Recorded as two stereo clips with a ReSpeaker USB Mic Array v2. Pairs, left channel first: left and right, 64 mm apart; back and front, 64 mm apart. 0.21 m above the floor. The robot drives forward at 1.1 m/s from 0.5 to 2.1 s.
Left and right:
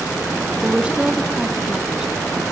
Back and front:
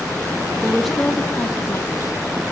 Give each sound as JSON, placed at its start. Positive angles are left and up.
{"t": 0.6, "sound": "a woman speaking", "azimuth_deg": -50, "distance_m": 1.0}